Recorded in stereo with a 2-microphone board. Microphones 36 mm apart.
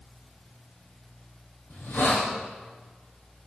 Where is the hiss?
85° left, 6 m.